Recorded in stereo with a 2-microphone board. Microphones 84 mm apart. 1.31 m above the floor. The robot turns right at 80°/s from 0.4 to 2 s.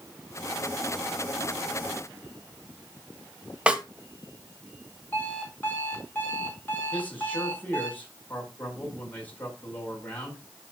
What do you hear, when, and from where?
3.7 s a snare drum: 15° right (ahead or behind), 1.2 m
5.1 s an alarm clock: 25° left (ahead or behind), 4.5 m
6.9 s a man speaking: 20° left (ahead or behind), 5.5 m